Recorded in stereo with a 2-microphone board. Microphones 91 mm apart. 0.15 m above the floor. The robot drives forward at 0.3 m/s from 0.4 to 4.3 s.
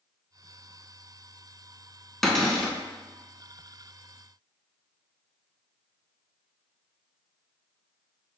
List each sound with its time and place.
2.2 s a cupboard door: 5° left (ahead or behind), 0.5 m